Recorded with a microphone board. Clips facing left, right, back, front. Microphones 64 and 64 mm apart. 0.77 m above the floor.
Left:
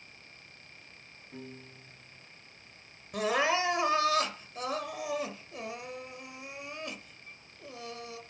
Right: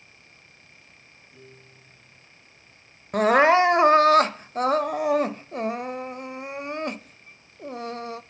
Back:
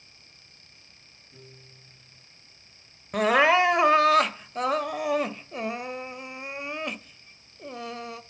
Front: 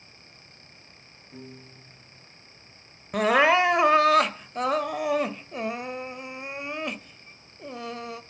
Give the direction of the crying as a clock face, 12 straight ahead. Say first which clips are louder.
Right 11 dB, even; 3 o'clock.